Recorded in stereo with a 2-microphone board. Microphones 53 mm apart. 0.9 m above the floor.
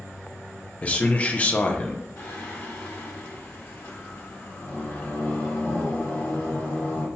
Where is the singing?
60° left (ahead or behind), 1.4 m.